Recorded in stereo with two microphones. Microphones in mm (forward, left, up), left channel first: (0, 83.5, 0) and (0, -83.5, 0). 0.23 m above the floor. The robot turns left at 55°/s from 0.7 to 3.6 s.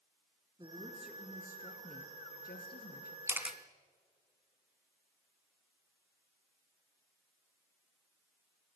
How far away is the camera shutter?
About 1.3 m.